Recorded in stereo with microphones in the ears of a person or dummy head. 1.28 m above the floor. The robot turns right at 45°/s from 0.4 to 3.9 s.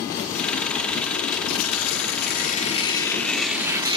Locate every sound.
1.5 s tearing paper: 95° left, 0.6 m; by 4.0 s 155° right, 0.6 m